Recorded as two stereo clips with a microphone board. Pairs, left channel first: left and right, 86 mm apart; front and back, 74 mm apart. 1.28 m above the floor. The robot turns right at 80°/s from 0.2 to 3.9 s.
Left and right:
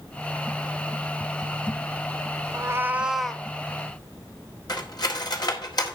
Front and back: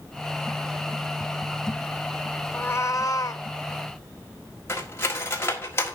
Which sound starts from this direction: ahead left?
Cutlery clinking, at 4.7 s.